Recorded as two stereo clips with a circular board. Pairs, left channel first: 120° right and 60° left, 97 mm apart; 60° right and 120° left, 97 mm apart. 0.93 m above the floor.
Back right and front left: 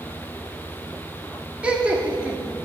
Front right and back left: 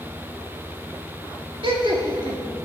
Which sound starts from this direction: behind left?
Laughter, at 1.6 s.